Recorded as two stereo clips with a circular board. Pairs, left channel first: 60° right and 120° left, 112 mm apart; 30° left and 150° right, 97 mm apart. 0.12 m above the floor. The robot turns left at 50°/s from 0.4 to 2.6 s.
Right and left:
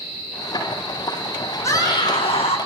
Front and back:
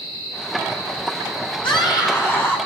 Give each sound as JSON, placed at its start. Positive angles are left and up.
{"t": 1.6, "sound": "a scream", "azimuth_deg": 0, "distance_m": 5.0}